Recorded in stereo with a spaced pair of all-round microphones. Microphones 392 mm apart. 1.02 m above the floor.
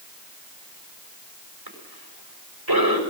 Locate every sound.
1.7 s a cough: 75° right (ahead or behind), 6 m